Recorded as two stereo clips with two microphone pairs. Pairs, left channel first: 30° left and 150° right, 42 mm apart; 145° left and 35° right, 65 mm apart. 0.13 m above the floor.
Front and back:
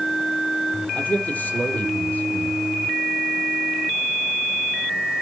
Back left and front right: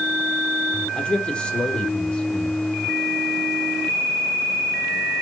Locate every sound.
0.9 s a man speaking: 70° left, 3.5 m